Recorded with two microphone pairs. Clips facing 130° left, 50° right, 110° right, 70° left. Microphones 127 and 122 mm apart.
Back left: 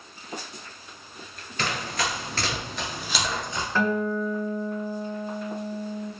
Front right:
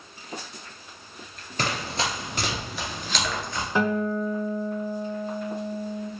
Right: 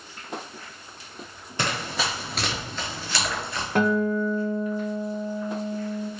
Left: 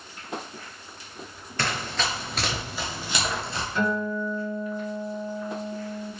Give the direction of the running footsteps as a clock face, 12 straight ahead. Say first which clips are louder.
Front right 1 dB, right 1 dB; 2 o'clock.